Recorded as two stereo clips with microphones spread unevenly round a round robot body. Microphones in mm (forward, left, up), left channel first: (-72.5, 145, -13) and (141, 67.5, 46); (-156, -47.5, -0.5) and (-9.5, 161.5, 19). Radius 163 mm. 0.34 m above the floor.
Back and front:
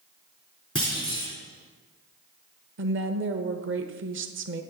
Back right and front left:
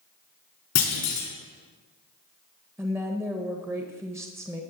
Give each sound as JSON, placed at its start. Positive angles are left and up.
{"t": 0.8, "sound": "a clunk", "azimuth_deg": -115, "distance_m": 4.0}
{"t": 2.8, "sound": "a woman speaking", "azimuth_deg": -25, "distance_m": 1.1}